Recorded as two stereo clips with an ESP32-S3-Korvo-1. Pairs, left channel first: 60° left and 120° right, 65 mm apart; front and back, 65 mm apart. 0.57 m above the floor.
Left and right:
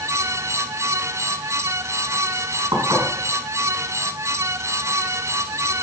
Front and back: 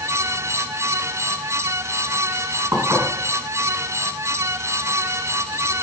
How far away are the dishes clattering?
About 4 m.